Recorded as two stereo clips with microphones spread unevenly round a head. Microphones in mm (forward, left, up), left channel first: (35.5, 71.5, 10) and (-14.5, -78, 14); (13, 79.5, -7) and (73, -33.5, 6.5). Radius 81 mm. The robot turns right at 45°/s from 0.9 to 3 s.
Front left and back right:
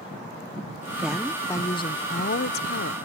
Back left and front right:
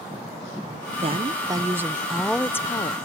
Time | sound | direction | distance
1.0 | a woman speaking | 25° right | ?